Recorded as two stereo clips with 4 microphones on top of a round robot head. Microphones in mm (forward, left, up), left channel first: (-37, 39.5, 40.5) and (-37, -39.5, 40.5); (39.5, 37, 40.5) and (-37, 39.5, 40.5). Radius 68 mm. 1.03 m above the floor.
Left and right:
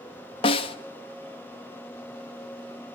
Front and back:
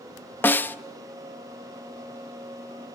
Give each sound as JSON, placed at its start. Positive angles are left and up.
{"t": 0.4, "sound": "a snare drum", "azimuth_deg": 65, "distance_m": 0.7}